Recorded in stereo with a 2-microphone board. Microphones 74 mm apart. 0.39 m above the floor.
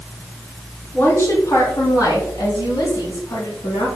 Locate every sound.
0.9 s a woman speaking: 30° left (ahead or behind), 2.5 m; by 3.9 s 70° left (ahead or behind), 3.5 m